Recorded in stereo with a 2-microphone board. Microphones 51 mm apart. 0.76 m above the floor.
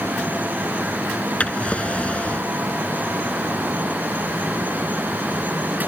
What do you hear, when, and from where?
1.4 s a drawer: 25° left (ahead or behind)